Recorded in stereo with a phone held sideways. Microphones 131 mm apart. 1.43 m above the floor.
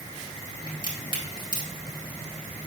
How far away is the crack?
About 3 m.